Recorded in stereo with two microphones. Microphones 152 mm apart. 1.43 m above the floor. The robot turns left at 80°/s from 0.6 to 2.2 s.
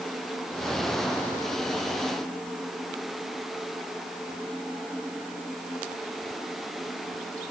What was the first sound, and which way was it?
Only background noise.